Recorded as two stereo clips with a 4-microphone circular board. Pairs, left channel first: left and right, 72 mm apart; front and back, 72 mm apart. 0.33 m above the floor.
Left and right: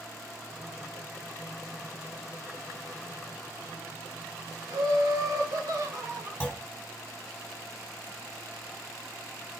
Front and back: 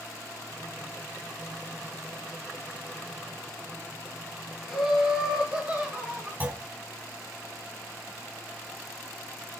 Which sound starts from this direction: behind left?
A clunk, at 6.4 s.